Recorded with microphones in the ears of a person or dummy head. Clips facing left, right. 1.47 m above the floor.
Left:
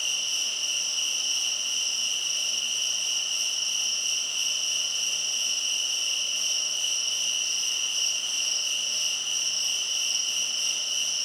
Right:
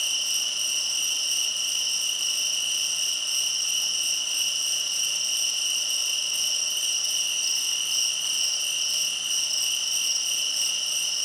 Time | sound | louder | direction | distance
0.0 | an insect | right 1 dB | 55° right (ahead or behind) | 2 m